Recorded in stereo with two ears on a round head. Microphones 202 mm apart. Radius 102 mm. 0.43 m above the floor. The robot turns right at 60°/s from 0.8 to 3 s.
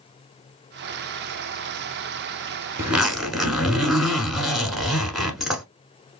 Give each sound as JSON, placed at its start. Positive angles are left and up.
{"t": 2.8, "sound": "a zipper", "side_deg": -15, "distance_m": 0.8}